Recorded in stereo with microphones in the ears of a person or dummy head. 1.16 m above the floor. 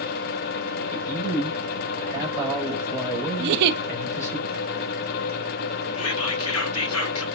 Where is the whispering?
75° left (ahead or behind), 1.8 m.